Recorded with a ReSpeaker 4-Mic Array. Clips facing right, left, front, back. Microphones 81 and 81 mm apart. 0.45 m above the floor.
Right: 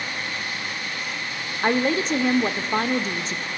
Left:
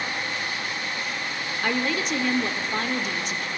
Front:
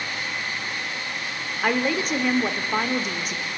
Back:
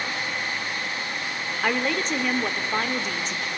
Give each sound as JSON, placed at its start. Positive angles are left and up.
{"t": 1.6, "sound": "a woman speaking", "azimuth_deg": -75, "distance_m": 0.8}